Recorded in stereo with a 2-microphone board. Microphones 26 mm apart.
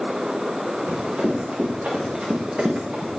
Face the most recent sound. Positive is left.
turn(degrees=-55)  # may be behind; listen again after turning